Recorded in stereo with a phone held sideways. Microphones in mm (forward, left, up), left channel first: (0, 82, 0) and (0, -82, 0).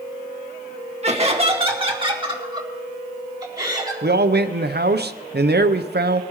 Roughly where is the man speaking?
Right.